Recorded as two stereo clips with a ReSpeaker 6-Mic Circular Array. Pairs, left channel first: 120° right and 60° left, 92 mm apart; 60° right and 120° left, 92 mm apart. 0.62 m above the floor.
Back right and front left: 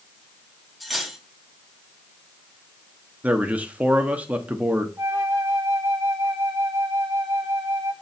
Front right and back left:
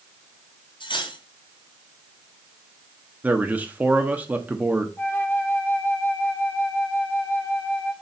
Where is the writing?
I don't hear writing.